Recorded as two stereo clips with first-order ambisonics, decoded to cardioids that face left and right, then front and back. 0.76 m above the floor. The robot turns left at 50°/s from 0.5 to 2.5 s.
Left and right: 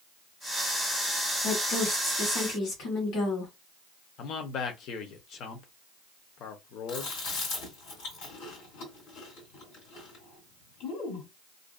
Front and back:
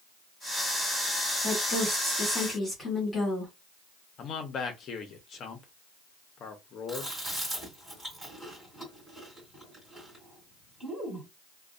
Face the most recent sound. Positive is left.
turn(degrees=100)